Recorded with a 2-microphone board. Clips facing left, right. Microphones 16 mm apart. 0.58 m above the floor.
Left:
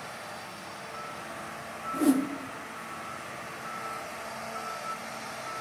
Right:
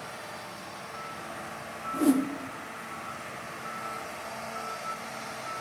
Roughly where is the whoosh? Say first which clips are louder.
Even; centre.